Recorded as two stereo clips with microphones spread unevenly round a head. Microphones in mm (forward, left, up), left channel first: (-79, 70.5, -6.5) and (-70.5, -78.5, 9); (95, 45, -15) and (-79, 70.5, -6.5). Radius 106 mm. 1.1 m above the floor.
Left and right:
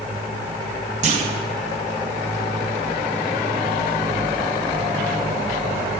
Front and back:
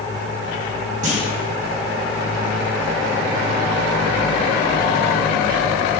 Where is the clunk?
130° right, 1.3 m.